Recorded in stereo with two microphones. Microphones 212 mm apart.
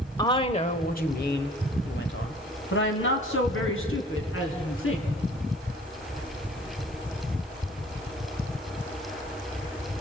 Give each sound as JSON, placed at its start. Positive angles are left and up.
{"t": 0.2, "sound": "a woman speaking", "side_deg": 20, "distance_m": 1.1}